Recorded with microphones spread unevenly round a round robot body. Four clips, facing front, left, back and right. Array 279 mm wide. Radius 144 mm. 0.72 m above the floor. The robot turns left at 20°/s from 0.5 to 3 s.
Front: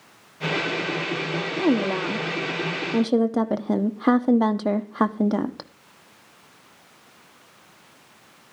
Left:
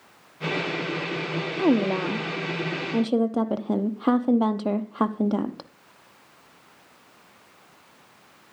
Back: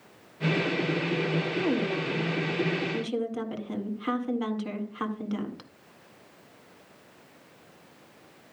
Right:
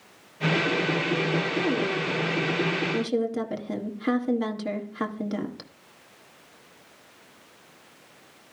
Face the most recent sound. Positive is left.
turn(degrees=20)